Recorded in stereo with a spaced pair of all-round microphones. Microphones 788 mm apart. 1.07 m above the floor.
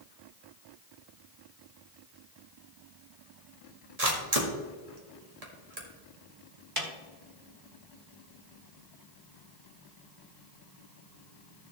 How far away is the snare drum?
About 1.7 m.